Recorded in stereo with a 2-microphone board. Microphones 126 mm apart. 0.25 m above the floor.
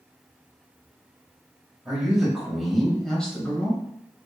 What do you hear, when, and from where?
1.9 s a man speaking: 5° right (ahead or behind), 1.2 m; by 3.8 s 15° left (ahead or behind), 1.2 m